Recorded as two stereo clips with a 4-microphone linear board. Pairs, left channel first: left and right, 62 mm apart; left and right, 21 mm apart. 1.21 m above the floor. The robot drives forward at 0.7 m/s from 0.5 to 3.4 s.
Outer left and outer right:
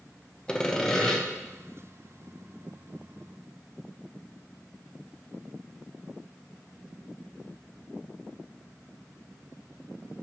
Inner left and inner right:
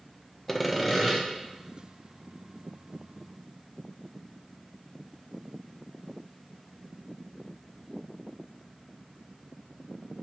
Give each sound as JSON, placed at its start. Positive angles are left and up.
{"t": 0.5, "sound": "sawing", "side_deg": 15, "distance_m": 0.7}